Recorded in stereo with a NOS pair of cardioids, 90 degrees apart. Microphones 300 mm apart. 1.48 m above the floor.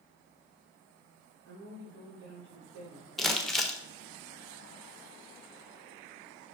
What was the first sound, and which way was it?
A woman speaking, 65° right.